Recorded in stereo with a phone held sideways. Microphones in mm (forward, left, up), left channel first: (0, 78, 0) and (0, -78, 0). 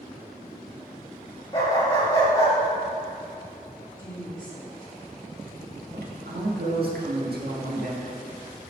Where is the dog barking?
20° left (ahead or behind), 2.5 m.